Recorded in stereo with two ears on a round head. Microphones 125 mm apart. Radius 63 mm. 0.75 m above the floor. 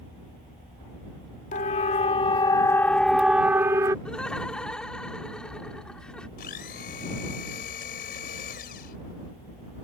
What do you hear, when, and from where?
1.5 s a siren: 55° left (ahead or behind); by 4.0 s 25° right (ahead or behind)
4.0 s laughter: 5° left (ahead or behind)
6.4 s a blender: 75° left (ahead or behind)